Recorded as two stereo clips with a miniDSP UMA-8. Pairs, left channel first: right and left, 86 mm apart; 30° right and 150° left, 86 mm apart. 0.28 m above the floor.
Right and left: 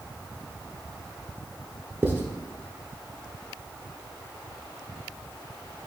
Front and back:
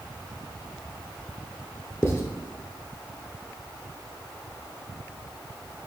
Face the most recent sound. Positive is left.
turn(degrees=25)